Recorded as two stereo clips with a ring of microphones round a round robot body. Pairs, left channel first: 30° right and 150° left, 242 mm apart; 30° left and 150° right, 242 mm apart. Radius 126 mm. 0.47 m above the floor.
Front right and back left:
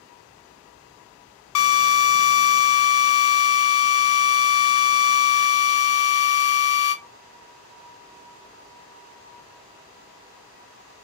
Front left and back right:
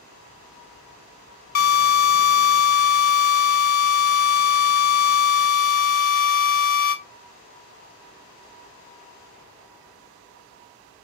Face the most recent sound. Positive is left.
turn(degrees=-20)